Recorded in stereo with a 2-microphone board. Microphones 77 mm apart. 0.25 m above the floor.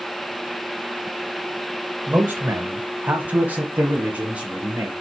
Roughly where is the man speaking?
Right.